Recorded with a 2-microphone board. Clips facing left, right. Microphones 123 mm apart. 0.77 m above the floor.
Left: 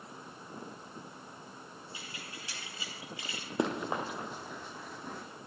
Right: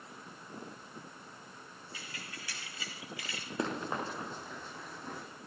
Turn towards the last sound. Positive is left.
turn(degrees=5)  # may be behind; listen again after turning